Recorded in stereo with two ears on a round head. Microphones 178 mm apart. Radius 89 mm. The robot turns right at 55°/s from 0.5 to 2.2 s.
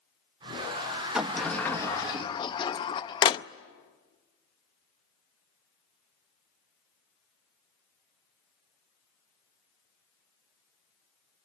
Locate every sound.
1.1 s a sliding door: 5° right (ahead or behind), 0.6 m; by 3.5 s 25° left (ahead or behind), 0.6 m